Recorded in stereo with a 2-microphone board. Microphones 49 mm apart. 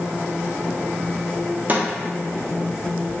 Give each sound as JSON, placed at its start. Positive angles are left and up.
{"t": 1.7, "sound": "a snare drum", "side_deg": -35, "distance_m": 0.6}